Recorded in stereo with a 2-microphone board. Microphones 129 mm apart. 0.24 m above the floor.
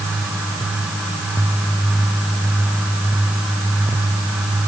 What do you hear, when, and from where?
Only background noise.